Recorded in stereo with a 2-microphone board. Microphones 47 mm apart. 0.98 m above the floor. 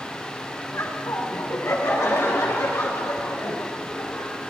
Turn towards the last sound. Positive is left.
turn(degrees=80)